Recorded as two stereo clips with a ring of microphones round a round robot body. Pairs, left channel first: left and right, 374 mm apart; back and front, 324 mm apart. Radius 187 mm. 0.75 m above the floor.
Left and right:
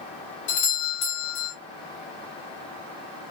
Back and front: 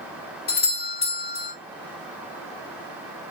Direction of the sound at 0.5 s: 125° left.